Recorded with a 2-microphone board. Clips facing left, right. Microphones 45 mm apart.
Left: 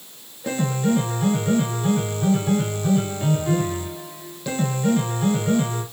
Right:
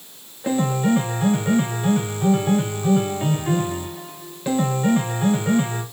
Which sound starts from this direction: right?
A piano, at 0.4 s.